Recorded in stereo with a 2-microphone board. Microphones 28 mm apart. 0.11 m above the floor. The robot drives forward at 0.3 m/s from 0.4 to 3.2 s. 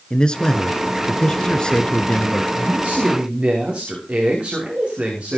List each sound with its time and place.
0.1 s a man speaking: 30° left (ahead or behind), 1.4 m; by 2.4 s 25° left (ahead or behind), 1.5 m
2.5 s a man speaking: 45° right (ahead or behind), 8.5 m; by 5.4 s 40° right (ahead or behind), 8.5 m